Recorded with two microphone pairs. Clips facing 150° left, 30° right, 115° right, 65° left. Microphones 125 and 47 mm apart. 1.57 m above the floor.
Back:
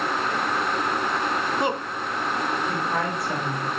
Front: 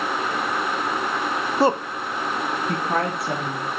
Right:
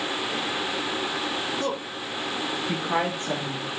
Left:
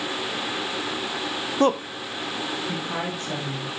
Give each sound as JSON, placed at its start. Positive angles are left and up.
{"t": 1.6, "sound": "a woman speaking", "azimuth_deg": 25, "distance_m": 0.8}